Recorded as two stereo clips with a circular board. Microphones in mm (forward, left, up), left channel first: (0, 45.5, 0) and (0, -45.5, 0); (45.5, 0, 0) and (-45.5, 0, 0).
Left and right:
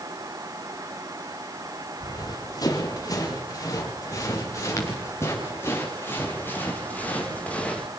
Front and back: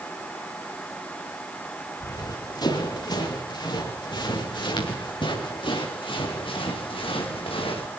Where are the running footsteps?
45° left, 10 m; by 7.9 s 10° left, 7 m.